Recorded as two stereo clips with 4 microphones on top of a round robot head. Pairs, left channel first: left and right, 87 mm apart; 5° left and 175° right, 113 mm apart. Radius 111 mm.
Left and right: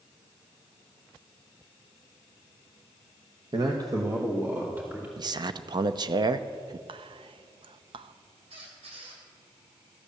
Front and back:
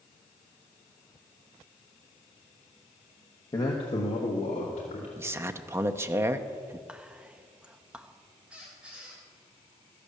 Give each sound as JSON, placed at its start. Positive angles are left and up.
{"t": 3.5, "sound": "a man speaking", "azimuth_deg": -55, "distance_m": 1.1}
{"t": 5.2, "sound": "a man speaking", "azimuth_deg": -115, "distance_m": 0.7}
{"t": 6.9, "sound": "whispering", "azimuth_deg": -95, "distance_m": 0.7}
{"t": 8.5, "sound": "a squeak", "azimuth_deg": -95, "distance_m": 3.5}